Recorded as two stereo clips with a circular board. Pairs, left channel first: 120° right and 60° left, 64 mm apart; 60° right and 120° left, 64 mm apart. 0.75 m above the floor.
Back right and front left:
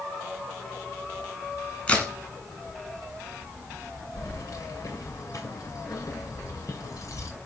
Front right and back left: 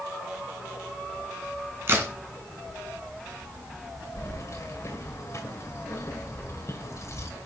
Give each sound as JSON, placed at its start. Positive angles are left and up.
{"t": 1.9, "sound": "a crack", "azimuth_deg": 170, "distance_m": 2.5}
{"t": 4.2, "sound": "keys jangling", "azimuth_deg": -95, "distance_m": 2.5}